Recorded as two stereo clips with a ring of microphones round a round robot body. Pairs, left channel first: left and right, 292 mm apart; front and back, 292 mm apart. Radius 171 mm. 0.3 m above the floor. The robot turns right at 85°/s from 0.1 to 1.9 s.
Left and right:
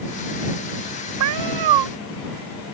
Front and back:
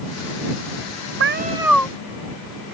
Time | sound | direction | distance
1.2 | a cat meowing | 135° right | ?